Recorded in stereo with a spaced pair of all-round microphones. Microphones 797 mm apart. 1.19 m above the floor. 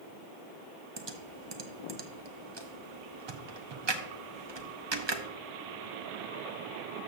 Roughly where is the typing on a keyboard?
Right.